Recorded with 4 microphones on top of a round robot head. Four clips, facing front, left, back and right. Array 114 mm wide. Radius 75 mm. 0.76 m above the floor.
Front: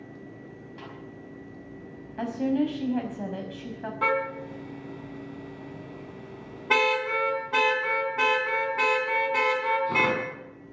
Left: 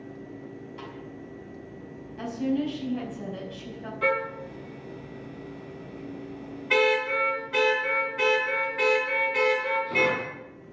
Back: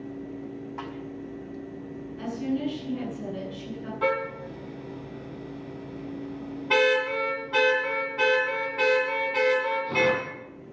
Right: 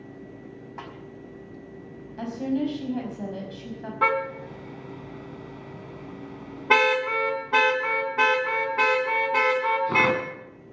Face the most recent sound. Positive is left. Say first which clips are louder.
# right 3 dB, even
turn(degrees=-80)